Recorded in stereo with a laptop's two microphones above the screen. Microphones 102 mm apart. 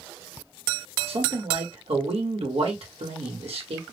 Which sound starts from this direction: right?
A man speaking, at 1.1 s.